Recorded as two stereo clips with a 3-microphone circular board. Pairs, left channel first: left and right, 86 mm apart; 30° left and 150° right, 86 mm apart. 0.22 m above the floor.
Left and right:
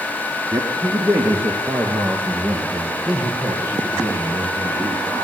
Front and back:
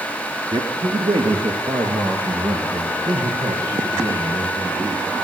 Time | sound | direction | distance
0.5 | a man speaking | 145° right | 3 m